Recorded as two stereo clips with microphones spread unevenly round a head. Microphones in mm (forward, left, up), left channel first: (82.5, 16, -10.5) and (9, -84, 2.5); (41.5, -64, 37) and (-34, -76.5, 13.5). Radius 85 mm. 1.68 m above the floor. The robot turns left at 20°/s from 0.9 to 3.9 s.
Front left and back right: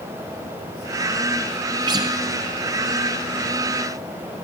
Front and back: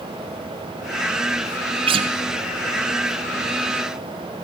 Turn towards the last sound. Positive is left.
turn(degrees=130)